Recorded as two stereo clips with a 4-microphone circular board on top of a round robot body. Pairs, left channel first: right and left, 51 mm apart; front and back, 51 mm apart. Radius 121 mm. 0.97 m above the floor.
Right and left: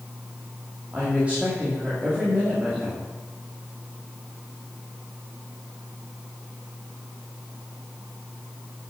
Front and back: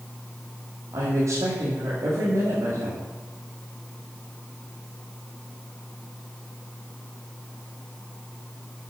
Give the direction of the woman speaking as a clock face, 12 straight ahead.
7 o'clock.